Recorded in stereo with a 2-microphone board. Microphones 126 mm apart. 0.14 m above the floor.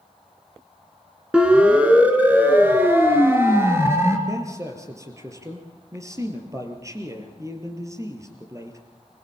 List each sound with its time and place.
1.3 s a siren: 10° right (ahead or behind), 2.5 m; by 4.2 s 20° right (ahead or behind), 3.5 m
4.3 s a man speaking: 25° right (ahead or behind), 4 m